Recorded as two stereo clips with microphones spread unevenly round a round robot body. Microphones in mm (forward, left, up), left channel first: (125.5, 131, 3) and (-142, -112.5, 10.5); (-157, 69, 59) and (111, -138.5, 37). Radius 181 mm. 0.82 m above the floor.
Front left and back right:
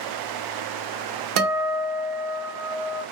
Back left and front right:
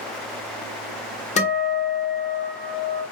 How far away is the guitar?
About 1.2 m.